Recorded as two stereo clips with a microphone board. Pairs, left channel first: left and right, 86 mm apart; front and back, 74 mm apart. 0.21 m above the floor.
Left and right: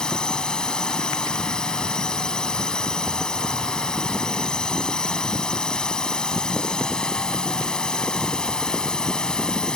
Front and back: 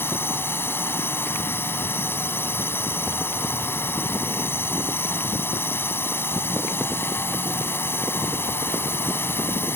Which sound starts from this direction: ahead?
A drone, at 0.0 s.